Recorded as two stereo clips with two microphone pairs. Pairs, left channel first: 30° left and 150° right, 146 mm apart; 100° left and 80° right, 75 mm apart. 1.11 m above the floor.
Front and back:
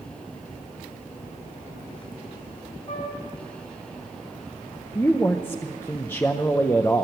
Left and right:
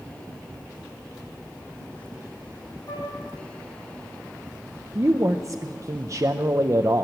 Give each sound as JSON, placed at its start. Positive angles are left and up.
{"t": 2.9, "sound": "a flute", "azimuth_deg": 80, "distance_m": 3.0}
{"t": 5.0, "sound": "a man speaking", "azimuth_deg": -40, "distance_m": 0.7}